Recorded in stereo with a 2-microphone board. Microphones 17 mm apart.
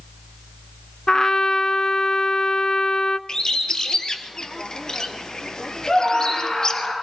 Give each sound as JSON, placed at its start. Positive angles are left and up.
{"t": 1.1, "sound": "a trumpet", "side_deg": 35, "distance_m": 0.6}
{"t": 3.3, "sound": "a bird", "side_deg": 45, "distance_m": 1.6}
{"t": 5.9, "sound": "a scream", "side_deg": 45, "distance_m": 3.0}